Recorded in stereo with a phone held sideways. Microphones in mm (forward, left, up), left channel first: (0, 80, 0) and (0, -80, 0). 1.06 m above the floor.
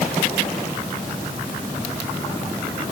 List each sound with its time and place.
Only background noise.